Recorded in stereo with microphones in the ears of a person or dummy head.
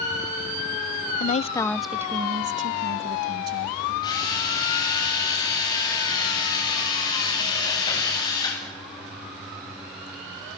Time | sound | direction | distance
1.2 | a woman speaking | 45° left (ahead or behind) | 0.6 m
4.0 | a drill | 25° left (ahead or behind) | 9 m